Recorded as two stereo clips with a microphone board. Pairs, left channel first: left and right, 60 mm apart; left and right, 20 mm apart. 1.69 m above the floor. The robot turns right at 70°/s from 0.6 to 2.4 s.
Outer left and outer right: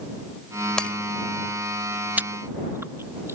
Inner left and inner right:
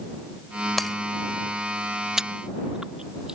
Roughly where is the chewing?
Right.